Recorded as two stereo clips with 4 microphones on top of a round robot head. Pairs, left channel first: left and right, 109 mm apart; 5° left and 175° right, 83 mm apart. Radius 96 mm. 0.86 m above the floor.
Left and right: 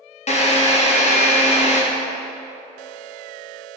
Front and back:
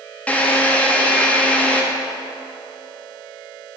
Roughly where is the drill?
Left.